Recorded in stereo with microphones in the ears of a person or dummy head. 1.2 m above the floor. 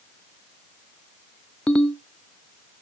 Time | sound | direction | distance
1.7 | a ringtone | 10° left (ahead or behind) | 0.8 m